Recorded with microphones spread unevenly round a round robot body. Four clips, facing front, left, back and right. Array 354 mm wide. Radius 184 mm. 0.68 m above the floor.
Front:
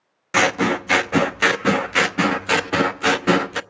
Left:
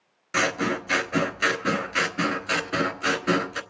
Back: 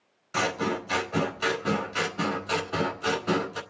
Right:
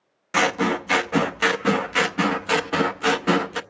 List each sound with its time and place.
0.3 s scissors: 5° right, 0.8 m